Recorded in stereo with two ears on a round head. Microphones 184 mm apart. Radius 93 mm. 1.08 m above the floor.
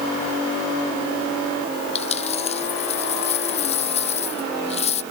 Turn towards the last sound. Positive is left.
turn(degrees=30)  # may be behind; listen again after turning